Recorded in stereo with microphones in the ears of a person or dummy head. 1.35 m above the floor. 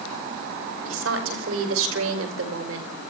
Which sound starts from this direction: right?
A woman speaking, at 0.8 s.